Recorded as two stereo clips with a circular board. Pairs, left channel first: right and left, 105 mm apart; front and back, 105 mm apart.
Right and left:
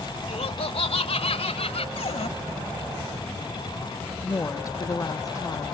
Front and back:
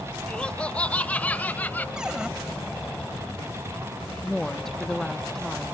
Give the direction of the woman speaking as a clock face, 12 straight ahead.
3 o'clock.